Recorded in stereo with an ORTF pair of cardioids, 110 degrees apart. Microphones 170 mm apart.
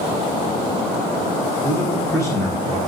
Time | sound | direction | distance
1.6 | a man speaking | 15° left | 1.3 m